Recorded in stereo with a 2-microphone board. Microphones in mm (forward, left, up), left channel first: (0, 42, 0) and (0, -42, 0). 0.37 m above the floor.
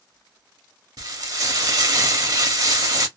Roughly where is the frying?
Right.